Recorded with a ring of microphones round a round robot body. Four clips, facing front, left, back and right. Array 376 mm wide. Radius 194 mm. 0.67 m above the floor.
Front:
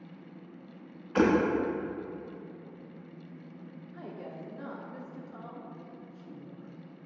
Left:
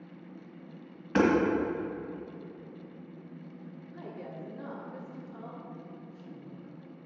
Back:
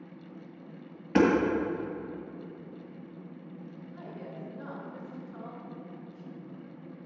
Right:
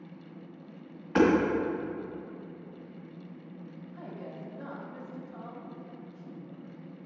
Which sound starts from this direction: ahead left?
A woman speaking, at 3.9 s.